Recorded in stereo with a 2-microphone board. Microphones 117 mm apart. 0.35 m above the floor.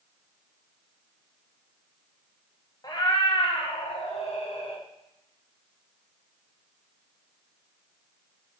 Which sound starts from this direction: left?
A cat meowing, at 2.8 s.